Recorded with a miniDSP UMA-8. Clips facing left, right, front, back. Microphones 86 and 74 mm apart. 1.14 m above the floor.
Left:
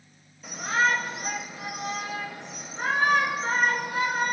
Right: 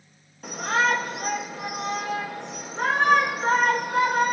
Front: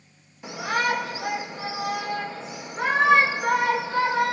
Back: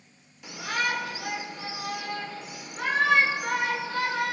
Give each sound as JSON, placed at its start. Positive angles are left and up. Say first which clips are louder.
{"t": 0.4, "sound": "a shout", "louder": "right 2 dB, front 5 dB", "azimuth_deg": -65, "distance_m": 3.0}